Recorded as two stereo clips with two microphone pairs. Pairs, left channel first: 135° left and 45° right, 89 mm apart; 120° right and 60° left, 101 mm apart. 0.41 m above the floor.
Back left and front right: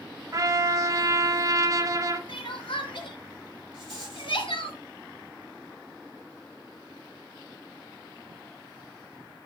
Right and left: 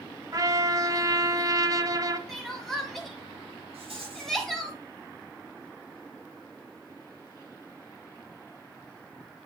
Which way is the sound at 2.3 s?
155° left.